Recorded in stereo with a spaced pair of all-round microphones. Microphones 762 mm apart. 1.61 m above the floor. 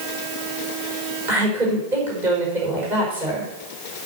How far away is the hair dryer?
No hair dryer in this recording.